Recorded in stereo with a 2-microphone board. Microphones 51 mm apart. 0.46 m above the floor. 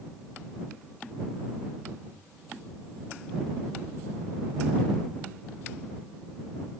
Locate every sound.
Only background noise.